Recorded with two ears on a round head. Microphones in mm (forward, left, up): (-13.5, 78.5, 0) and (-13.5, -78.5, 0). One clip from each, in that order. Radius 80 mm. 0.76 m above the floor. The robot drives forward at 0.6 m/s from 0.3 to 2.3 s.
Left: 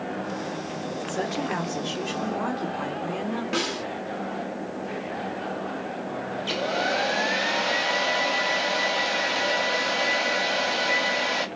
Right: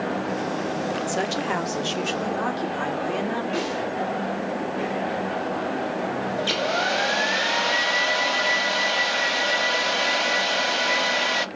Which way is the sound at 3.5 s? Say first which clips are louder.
Right 1 dB; 60° left (ahead or behind).